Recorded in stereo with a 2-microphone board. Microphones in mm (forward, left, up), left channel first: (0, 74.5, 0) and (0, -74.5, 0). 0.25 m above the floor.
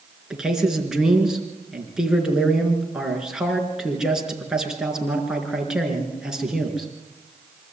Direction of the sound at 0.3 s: 5° right (ahead or behind).